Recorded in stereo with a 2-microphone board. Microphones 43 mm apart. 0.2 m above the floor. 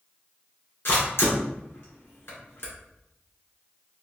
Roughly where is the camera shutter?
Left.